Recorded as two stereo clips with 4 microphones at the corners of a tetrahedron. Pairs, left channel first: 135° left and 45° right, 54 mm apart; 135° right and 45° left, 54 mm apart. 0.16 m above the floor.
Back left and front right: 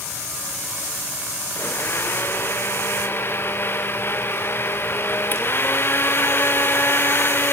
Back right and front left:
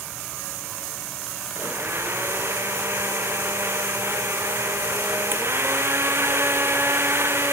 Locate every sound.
1.6 s a blender: 85° left, 2 m